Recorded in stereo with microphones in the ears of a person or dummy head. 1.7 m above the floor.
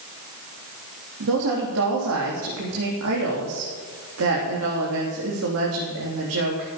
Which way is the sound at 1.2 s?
85° right.